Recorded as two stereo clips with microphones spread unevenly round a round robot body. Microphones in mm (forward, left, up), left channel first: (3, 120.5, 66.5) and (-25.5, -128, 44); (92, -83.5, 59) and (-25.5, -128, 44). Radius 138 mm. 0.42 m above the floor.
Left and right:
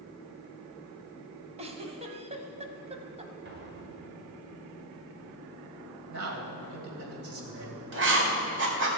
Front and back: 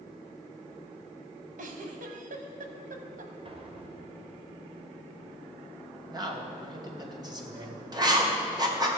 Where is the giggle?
165° right, 1.0 m.